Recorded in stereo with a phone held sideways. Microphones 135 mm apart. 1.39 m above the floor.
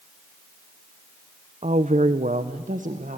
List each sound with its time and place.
1.6 s a woman speaking: 55° right (ahead or behind), 0.8 m; by 3.2 s 75° right (ahead or behind), 1.4 m